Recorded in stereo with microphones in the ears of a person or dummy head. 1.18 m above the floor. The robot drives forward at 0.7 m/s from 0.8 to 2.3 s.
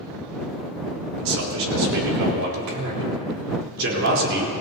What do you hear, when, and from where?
1.2 s a man speaking: 75° right (ahead or behind), 4 m; by 4.5 s 70° right (ahead or behind), 4 m